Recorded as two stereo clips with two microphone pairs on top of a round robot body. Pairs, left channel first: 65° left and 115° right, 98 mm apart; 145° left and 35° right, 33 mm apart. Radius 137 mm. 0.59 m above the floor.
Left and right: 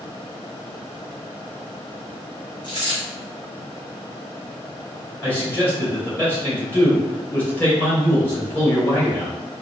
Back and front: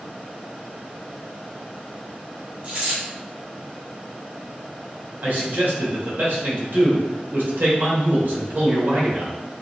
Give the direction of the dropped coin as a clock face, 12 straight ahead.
11 o'clock.